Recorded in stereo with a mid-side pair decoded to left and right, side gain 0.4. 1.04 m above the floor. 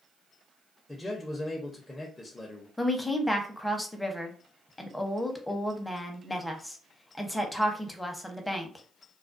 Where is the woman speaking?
10° left, 0.8 m.